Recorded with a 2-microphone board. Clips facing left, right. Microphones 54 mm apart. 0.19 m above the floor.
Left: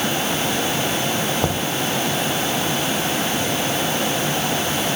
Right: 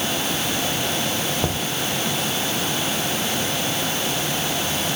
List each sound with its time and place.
1.4 s knocking: 10° left (ahead or behind)